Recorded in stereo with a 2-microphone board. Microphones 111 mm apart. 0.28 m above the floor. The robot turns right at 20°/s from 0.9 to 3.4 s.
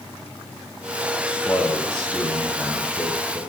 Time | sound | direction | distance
1.3 | a man speaking | 160° left | 6.5 m